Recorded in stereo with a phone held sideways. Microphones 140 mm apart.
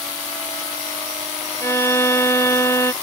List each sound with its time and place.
1.6 s a violin: 20° left (ahead or behind)